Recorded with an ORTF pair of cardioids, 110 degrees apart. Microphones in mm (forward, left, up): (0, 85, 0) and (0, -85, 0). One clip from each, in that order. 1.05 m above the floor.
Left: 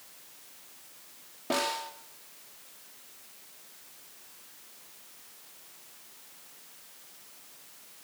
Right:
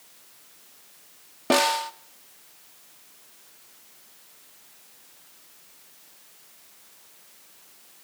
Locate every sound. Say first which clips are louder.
1.5 s a snare drum: right 9 dB; 55° right, 1.4 m